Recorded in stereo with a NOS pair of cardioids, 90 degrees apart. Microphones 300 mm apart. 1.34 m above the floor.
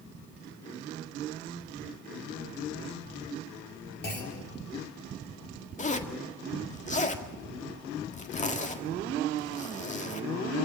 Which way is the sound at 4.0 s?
35° left.